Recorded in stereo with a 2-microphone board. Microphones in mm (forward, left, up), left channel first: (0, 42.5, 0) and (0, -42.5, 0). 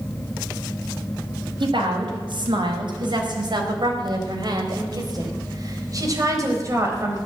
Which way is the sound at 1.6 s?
80° right.